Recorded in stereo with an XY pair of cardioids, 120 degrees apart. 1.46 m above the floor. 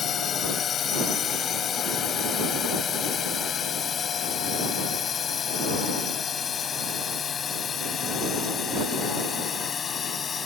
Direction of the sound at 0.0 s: 50° left.